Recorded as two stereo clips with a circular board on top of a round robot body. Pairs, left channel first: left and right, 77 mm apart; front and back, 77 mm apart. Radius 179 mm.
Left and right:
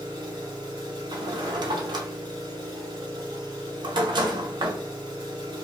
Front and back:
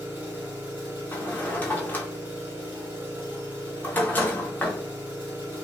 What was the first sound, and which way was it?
An engine running, 115° right.